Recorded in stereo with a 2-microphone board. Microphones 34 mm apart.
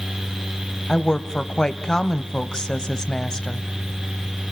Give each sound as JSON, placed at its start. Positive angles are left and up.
{"t": 0.9, "sound": "a woman speaking", "side_deg": 20, "distance_m": 1.0}